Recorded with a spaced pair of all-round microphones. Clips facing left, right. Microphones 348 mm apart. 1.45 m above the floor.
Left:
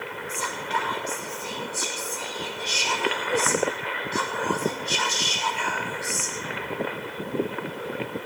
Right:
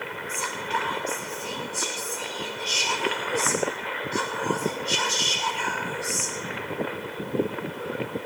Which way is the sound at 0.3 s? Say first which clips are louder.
Even; 40° right (ahead or behind).